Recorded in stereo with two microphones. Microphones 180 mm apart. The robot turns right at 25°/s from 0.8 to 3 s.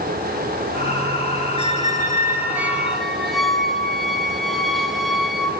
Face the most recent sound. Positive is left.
turn(degrees=0)